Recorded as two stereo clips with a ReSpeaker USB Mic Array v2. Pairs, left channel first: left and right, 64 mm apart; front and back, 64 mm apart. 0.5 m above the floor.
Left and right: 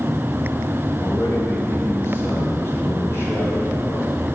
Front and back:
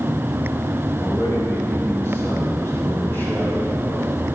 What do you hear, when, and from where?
1.0 s a man speaking: 45° left, 3.5 m; by 4.1 s 55° left, 5 m